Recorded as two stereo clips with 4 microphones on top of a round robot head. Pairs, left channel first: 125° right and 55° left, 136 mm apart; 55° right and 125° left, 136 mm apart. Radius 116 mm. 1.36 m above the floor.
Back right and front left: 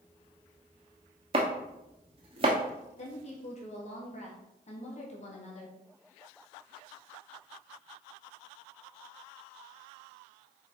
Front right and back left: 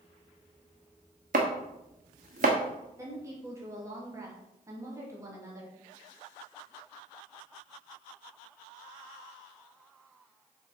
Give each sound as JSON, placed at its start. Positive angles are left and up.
{"t": 1.3, "sound": "chopping", "azimuth_deg": 100, "distance_m": 1.1}
{"t": 3.0, "sound": "a woman speaking", "azimuth_deg": -165, "distance_m": 2.5}